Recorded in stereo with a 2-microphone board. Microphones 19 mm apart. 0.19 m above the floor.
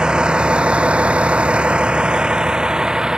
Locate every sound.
0.0 s a vehicle: 50° right (ahead or behind); by 3.2 s 35° right (ahead or behind)